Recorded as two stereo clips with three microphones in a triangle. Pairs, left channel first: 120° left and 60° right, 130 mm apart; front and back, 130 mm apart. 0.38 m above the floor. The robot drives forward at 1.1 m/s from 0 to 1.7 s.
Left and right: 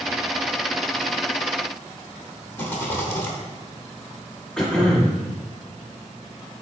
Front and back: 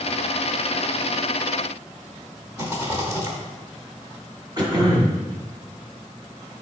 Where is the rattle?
155° left, 1.0 m.